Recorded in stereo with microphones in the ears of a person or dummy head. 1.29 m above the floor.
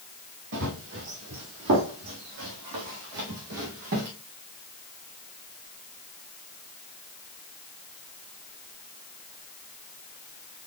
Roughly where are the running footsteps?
Right.